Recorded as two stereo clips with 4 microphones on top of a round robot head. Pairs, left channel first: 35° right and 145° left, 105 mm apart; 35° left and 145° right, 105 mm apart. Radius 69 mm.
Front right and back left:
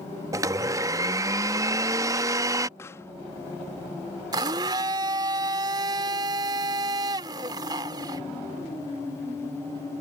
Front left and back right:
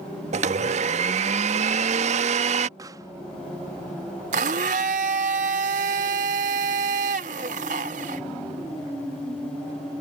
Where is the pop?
95° right.